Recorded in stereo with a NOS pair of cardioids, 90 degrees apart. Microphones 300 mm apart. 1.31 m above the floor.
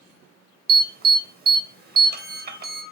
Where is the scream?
No scream in this recording.